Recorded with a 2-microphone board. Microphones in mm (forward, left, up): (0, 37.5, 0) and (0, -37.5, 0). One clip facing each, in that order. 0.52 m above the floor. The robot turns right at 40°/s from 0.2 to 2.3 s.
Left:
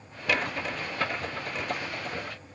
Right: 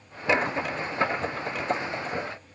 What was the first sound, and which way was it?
Only background noise.